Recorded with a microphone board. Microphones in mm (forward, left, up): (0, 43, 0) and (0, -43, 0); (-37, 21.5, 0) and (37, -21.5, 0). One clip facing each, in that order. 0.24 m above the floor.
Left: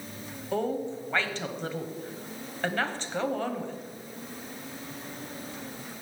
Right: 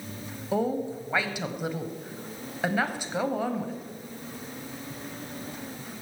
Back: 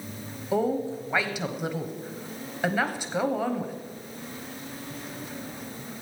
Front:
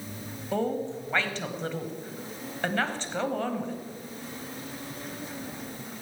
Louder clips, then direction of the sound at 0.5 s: Right 2 dB, back 3 dB; 150° right.